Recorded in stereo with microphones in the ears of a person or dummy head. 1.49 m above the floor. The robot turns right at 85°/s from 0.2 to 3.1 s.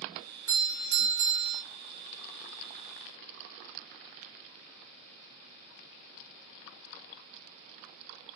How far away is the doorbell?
About 1.1 m.